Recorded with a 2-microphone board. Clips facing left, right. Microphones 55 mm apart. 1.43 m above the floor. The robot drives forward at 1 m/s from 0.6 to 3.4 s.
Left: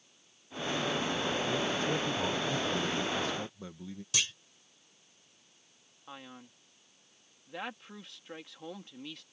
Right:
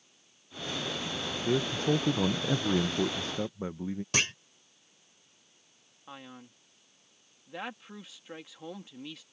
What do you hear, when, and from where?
1.4 s a man speaking: 40° right (ahead or behind)
4.1 s a clunk: 50° right (ahead or behind)
6.1 s a man speaking: centre (ahead or behind)